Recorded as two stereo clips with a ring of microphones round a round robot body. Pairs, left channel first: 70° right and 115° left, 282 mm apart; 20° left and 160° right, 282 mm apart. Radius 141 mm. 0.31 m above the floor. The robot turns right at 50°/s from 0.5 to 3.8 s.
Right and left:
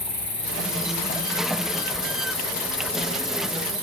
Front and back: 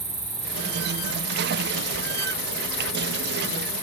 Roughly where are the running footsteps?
I don't hear running footsteps.